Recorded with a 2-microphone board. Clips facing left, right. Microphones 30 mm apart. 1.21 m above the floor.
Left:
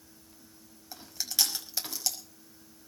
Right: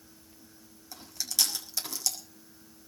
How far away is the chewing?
About 5.5 m.